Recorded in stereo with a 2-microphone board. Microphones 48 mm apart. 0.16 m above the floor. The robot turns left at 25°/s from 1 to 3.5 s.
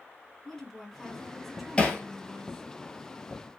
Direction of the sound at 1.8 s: 20° left (ahead or behind).